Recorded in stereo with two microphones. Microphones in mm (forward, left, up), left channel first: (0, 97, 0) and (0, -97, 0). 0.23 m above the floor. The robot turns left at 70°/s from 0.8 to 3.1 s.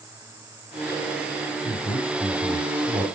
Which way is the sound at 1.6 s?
20° left (ahead or behind).